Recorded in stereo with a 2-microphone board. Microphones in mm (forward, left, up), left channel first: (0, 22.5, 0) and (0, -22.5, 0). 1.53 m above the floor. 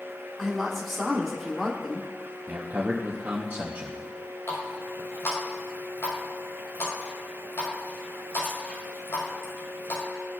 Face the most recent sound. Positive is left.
turn(degrees=80)